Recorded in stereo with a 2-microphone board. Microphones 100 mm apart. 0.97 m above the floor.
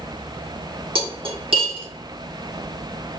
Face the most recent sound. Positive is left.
turn(degrees=-65)  # may be behind; listen again after turning